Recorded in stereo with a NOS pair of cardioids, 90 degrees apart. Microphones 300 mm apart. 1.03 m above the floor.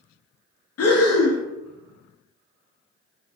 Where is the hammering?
No hammering in this recording.